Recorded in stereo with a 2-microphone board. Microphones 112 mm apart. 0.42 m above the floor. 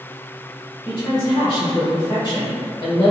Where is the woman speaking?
40° left (ahead or behind), 1.7 m.